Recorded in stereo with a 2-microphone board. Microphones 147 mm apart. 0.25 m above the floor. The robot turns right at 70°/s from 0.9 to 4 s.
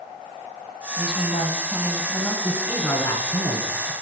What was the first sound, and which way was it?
A woman speaking, 85° left.